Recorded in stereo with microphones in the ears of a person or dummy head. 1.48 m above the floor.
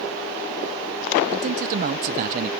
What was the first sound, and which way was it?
A man speaking, 45° right (ahead or behind).